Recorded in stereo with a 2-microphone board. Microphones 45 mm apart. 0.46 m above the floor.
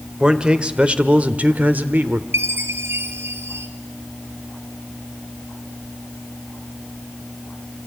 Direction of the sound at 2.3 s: 80° right.